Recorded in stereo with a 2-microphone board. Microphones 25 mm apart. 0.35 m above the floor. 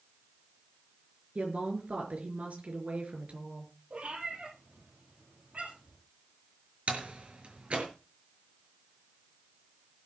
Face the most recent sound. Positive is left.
turn(degrees=-55)  # may be behind; listen again after turning